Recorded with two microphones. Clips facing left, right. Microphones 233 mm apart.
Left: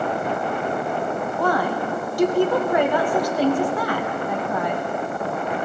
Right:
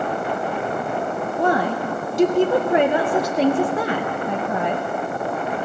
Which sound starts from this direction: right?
A woman speaking, at 1.4 s.